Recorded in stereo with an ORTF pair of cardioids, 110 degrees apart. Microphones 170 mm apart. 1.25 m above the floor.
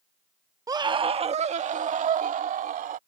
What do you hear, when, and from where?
0.7 s a scream: 20° right; by 3.0 s 55° right